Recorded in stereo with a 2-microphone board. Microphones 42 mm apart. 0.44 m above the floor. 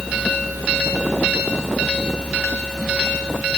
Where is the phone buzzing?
I don't hear a phone buzzing.